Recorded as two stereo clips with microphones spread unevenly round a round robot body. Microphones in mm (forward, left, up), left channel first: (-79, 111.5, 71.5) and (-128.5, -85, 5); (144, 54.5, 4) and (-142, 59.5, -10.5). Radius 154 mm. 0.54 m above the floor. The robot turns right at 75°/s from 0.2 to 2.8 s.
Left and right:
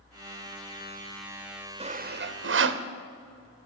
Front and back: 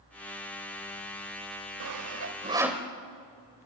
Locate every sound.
1.8 s sawing: 160° right, 1.1 m; by 2.8 s 85° right, 1.1 m